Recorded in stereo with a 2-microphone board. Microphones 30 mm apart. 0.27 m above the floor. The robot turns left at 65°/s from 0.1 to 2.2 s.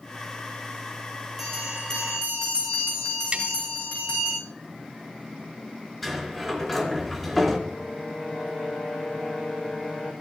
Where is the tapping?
35° right (ahead or behind), 1.3 m.